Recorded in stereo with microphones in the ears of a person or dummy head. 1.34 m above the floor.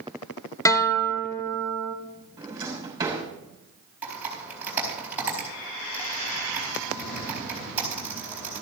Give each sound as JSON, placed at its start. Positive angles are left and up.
{"t": 0.7, "sound": "a guitar", "side_deg": 15, "distance_m": 0.8}
{"t": 2.4, "sound": "a drawer", "side_deg": -20, "distance_m": 3.0}
{"t": 4.0, "sound": "typing on a keyboard", "side_deg": -15, "distance_m": 4.5}